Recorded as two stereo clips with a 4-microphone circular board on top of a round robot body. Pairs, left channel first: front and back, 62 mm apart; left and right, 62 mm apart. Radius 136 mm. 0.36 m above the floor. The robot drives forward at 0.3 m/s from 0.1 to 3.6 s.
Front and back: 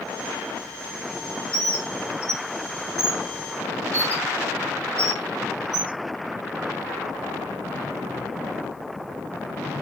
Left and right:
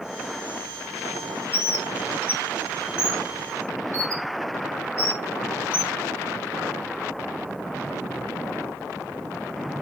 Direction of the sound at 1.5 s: 135° left.